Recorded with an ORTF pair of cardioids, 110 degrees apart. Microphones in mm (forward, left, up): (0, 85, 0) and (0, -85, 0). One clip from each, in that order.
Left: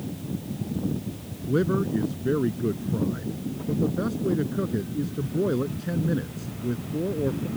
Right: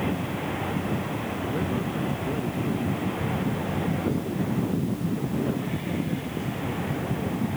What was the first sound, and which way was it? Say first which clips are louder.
A man speaking: left 9 dB; 55° left.